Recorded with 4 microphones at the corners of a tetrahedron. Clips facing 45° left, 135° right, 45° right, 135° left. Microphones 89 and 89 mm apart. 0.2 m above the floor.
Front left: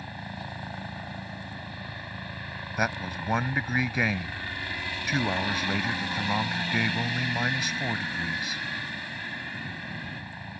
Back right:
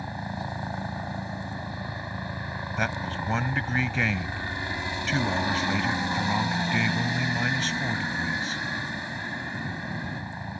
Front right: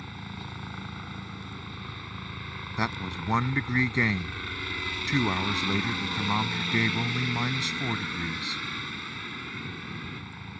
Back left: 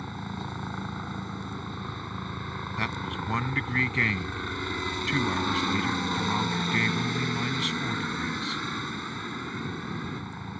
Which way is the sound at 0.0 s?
Straight behind.